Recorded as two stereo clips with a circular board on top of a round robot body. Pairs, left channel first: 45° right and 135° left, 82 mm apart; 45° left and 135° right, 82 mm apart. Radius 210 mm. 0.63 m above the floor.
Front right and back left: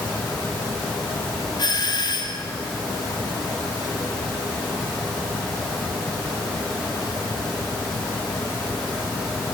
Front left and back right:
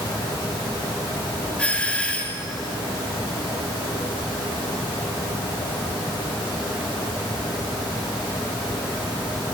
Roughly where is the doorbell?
Ahead right.